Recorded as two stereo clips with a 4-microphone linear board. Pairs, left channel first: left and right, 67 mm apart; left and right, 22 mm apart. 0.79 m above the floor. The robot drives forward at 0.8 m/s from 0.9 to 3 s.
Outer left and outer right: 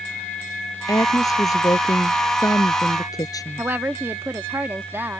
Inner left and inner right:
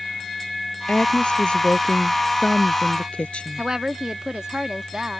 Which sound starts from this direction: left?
A woman speaking, at 0.9 s.